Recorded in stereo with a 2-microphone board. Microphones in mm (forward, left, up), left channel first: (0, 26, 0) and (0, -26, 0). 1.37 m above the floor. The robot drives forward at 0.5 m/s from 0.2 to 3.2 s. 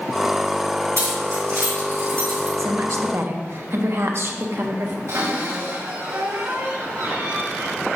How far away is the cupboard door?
About 2.5 m.